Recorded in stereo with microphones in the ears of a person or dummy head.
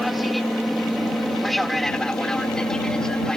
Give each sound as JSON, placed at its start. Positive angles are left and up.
{"t": 0.0, "sound": "an aircraft", "side_deg": 5}